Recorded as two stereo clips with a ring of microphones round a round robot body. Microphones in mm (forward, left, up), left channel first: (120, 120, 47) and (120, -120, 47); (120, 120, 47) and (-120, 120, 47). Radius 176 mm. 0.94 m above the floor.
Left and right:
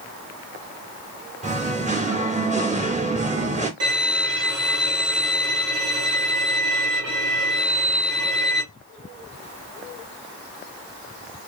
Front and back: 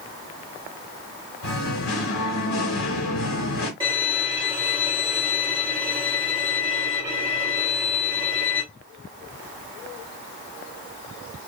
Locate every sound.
1.4 s singing: 30° right, 1.2 m
3.8 s a violin: 105° right, 1.4 m